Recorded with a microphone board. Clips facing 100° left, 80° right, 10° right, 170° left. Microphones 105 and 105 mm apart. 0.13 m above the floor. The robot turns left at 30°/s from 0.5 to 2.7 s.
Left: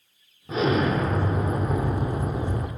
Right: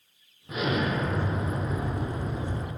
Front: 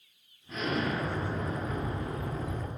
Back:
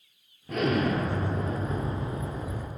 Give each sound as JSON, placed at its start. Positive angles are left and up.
{"t": 0.5, "sound": "an explosion", "azimuth_deg": 160, "distance_m": 0.7}